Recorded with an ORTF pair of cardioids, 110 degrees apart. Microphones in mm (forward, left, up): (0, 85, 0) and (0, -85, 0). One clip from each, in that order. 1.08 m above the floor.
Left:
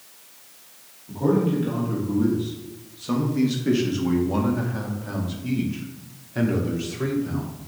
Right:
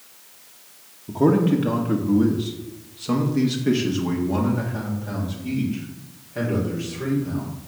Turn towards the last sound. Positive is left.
turn(degrees=25)